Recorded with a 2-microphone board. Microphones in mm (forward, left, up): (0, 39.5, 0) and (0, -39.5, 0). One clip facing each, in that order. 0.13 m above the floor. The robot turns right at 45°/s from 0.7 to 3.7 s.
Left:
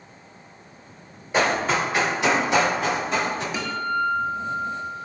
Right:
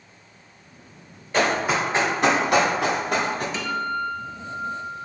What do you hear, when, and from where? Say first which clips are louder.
1.3 s running footsteps: even; 10° left (ahead or behind), 1.7 m; by 3.4 s 50° right (ahead or behind), 1.4 m
3.5 s a guitar: left 1 dB; 15° left (ahead or behind), 0.7 m; by 5.0 s 10° left (ahead or behind), 0.7 m